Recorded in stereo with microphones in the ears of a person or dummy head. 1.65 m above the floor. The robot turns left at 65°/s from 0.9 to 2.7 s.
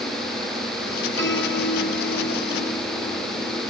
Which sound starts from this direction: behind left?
A piano, at 1.2 s.